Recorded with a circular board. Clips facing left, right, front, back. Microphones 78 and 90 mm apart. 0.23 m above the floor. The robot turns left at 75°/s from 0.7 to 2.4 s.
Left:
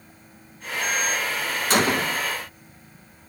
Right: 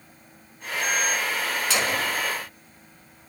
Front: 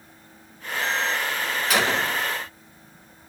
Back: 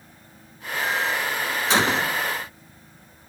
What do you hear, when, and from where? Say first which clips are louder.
1.7 s a gunshot: left 7 dB, back 2 dB; 125° left, 1.2 m; by 2.2 s 85° left, 1.2 m